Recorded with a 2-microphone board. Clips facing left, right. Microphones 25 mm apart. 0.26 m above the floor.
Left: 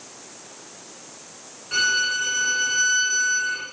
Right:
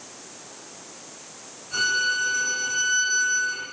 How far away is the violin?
About 4.5 m.